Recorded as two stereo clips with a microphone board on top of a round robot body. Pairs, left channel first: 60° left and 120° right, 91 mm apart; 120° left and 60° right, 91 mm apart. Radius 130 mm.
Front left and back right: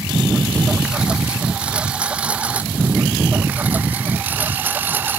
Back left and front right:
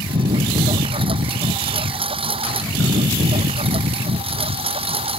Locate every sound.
0.0 s a lawn mower: 40° right; by 5.2 s 50° right